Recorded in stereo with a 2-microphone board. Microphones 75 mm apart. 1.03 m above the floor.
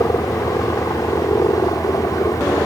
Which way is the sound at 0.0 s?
55° left (ahead or behind).